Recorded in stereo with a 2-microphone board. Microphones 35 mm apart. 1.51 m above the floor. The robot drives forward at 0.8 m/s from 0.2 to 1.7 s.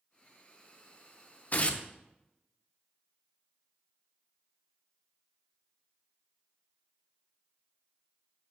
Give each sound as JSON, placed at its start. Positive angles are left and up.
{"t": 1.5, "sound": "tearing paper", "side_deg": 50, "distance_m": 0.8}